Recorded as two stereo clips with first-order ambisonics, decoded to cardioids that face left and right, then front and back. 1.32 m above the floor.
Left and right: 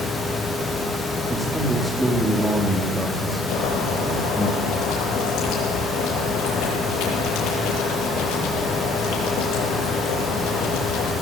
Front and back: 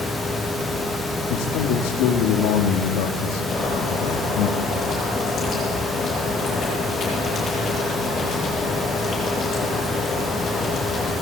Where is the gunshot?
I don't hear a gunshot.